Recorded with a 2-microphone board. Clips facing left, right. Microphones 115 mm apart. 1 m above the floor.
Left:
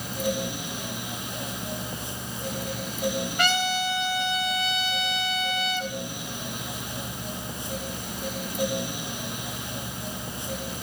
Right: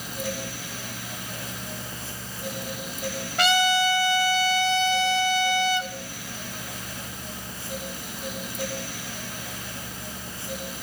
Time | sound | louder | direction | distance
3.4 | a trumpet | right 6 dB | 80° right | 2.5 m